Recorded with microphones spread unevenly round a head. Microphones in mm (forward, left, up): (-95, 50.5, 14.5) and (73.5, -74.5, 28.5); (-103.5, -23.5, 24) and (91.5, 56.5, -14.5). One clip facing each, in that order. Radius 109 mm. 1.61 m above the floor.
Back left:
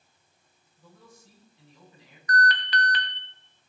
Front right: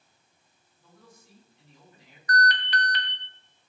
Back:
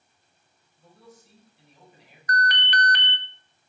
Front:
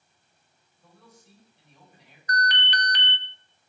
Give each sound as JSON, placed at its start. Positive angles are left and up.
{"t": 0.8, "sound": "a man speaking", "azimuth_deg": 115, "distance_m": 8.5}
{"t": 2.3, "sound": "an alarm", "azimuth_deg": 160, "distance_m": 1.7}